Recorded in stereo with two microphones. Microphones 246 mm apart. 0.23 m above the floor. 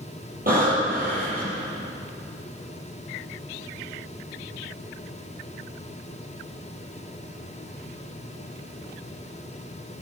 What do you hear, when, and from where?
0.5 s breathing: 35° right (ahead or behind), 6 m